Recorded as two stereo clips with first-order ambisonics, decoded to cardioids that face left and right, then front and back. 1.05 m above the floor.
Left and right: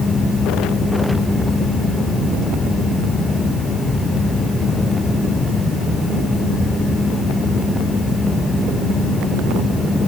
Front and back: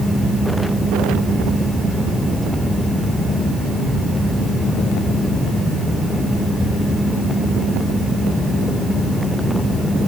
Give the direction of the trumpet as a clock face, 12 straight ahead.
I don't hear a trumpet.